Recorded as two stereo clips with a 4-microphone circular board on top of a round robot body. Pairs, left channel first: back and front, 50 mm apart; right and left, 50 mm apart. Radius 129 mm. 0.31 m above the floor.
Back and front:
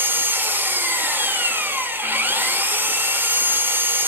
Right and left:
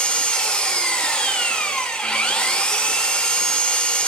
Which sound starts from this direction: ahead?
An engine running, at 0.0 s.